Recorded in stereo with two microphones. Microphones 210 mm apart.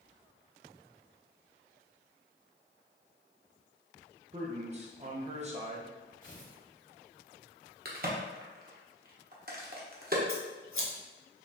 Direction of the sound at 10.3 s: 80° left.